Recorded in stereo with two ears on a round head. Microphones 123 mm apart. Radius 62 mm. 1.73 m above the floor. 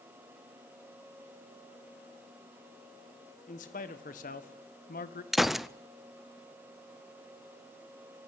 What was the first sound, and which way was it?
A man speaking, 60° left (ahead or behind).